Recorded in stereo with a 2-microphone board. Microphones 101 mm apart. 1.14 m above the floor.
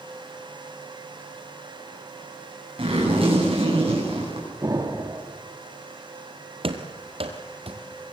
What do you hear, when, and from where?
2.8 s a zipper: 60° right (ahead or behind), 8 m
4.6 s an explosion: 35° right (ahead or behind), 2 m
6.6 s running footsteps: 55° right (ahead or behind), 2.0 m; by 7.8 s 60° right (ahead or behind), 2.5 m